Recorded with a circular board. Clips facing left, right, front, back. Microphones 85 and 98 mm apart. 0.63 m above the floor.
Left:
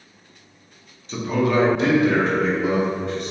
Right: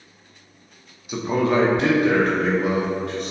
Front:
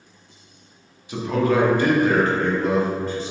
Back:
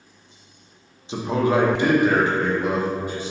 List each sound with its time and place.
1.1 s a man speaking: 155° right, 0.6 m; by 3.3 s 105° right, 1.9 m